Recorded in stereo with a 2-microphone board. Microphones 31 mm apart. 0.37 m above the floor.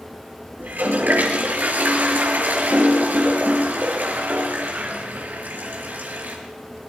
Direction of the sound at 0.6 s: 75° right (ahead or behind).